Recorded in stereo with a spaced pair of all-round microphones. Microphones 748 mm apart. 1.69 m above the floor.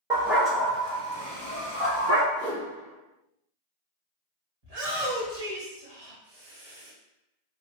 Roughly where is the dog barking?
Centre.